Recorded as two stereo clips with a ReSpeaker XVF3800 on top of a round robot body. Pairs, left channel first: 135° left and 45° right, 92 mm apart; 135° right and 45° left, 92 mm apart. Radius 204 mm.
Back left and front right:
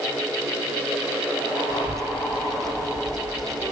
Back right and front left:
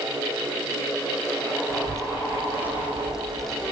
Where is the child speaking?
5° left, 1.5 m; by 3.7 s 60° right, 1.2 m.